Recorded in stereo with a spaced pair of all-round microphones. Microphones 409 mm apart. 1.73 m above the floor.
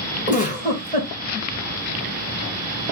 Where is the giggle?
20° left (ahead or behind), 1.8 m.